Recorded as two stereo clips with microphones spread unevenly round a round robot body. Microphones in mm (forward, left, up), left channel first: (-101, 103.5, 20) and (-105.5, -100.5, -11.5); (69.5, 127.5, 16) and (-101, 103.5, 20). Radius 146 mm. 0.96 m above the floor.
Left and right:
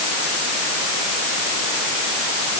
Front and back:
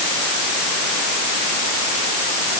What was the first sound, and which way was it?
Only background noise.